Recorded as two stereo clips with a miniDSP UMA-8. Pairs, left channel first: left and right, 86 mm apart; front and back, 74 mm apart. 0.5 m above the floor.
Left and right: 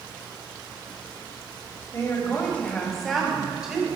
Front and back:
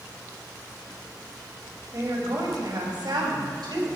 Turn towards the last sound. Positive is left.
turn(degrees=-165)